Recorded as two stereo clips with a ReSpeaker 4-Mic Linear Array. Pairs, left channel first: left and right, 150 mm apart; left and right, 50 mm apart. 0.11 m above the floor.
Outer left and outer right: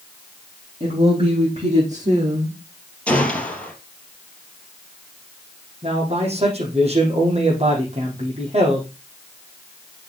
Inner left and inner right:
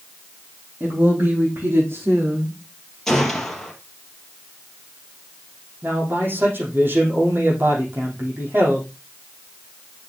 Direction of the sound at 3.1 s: 10° left (ahead or behind).